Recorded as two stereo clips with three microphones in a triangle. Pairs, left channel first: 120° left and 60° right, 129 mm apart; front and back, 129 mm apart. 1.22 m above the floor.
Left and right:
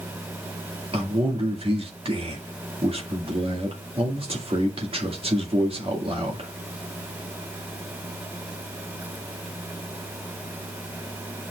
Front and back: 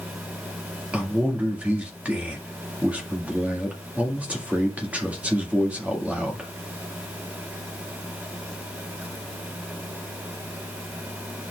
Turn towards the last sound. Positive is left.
turn(degrees=-100)